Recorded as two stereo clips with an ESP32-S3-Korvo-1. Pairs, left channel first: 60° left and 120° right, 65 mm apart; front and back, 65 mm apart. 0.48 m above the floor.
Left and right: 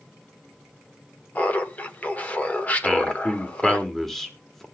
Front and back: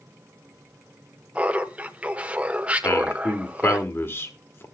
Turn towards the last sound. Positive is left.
turn(degrees=-25)